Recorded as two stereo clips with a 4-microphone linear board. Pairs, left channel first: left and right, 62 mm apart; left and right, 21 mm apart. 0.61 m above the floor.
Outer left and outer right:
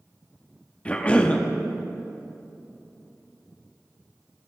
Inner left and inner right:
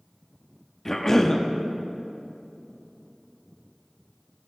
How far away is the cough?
About 0.6 m.